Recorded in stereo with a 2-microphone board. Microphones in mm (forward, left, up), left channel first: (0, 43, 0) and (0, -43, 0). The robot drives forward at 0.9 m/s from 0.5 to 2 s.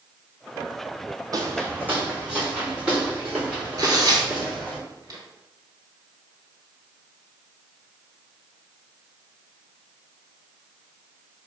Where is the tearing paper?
45° right (ahead or behind), 1.3 m.